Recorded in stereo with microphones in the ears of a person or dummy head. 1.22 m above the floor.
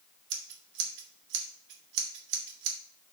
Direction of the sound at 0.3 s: 75° right (ahead or behind).